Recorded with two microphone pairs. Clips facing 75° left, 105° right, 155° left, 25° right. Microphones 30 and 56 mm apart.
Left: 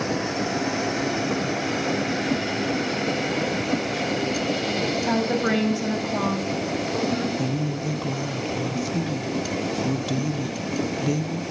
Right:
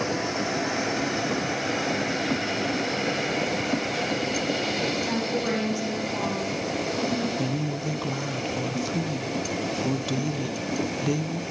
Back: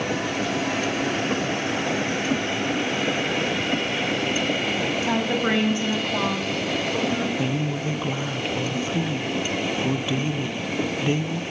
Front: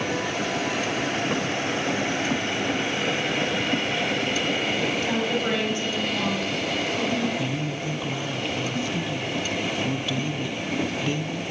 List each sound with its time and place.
5.0 s a woman speaking: 80° left, 3.5 m; by 7.3 s 115° left, 3 m
7.4 s a woman speaking: 175° left, 0.5 m